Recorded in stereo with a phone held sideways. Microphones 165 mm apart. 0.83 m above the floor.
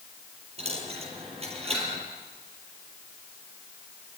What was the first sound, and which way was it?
A dropped coin, 35° right (ahead or behind).